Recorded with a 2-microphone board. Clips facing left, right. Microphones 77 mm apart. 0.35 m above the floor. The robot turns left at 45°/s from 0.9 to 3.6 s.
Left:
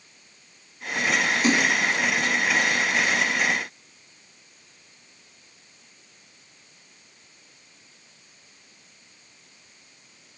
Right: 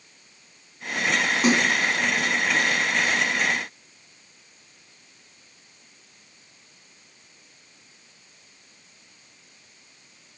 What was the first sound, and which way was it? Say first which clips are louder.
A splash: right 2 dB; 65° right (ahead or behind).